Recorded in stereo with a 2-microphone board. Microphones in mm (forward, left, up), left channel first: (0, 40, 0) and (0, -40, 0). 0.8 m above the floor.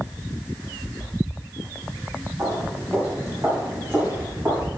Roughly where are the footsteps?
Right.